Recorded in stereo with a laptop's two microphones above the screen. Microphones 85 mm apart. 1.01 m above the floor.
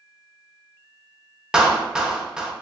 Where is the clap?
5° right (ahead or behind), 0.6 m.